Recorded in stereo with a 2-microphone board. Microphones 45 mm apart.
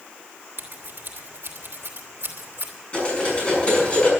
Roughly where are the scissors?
Right.